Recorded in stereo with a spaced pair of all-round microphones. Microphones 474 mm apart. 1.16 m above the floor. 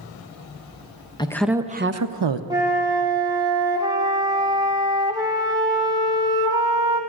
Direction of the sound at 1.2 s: 10° left (ahead or behind).